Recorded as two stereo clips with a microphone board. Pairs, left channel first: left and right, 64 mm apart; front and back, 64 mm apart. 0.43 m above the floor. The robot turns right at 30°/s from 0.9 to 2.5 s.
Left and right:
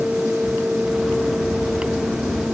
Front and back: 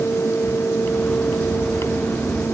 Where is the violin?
I don't hear a violin.